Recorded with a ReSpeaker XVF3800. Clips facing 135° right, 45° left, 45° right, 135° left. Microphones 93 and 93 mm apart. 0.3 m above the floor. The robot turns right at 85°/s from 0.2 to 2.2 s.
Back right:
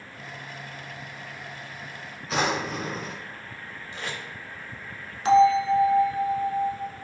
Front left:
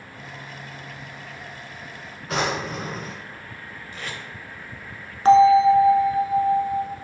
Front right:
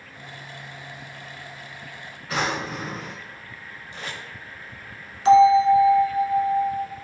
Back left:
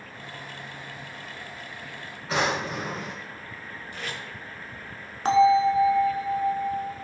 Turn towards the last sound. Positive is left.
turn(degrees=90)